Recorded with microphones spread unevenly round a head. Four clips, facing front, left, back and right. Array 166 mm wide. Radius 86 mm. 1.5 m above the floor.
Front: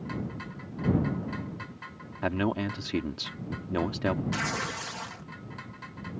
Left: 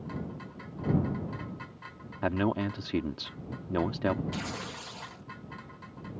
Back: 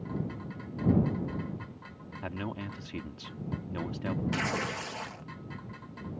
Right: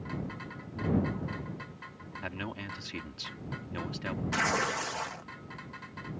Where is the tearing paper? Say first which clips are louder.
Right 8 dB, even; 120° right.